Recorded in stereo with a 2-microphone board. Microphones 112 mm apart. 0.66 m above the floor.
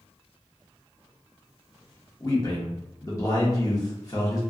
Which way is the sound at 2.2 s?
30° left (ahead or behind).